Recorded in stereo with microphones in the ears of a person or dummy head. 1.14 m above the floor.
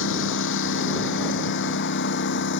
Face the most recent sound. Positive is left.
turn(degrees=55)  # may be behind; listen again after turning